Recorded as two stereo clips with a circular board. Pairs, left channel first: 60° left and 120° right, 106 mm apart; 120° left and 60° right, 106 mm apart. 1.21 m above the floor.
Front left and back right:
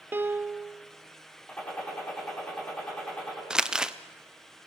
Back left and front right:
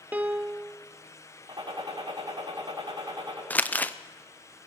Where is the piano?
100° right, 0.6 m.